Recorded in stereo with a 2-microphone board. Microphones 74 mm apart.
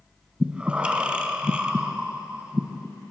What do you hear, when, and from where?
0.4 s breathing: 15° right (ahead or behind), 0.6 m